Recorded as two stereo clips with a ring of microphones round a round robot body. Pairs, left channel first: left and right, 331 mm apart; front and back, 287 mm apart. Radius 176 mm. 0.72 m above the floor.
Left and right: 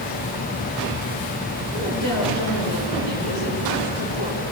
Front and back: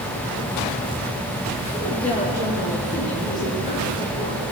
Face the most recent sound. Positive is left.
turn(degrees=-70)